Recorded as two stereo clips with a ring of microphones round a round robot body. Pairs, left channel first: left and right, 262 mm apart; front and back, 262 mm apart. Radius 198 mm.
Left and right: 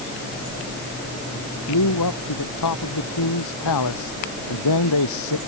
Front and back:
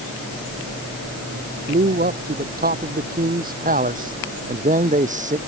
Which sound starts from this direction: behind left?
A man speaking, at 1.3 s.